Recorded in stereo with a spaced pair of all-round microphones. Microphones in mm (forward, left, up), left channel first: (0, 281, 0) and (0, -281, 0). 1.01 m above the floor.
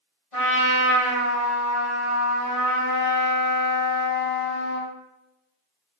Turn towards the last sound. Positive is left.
turn(degrees=65)  # may be behind; listen again after turning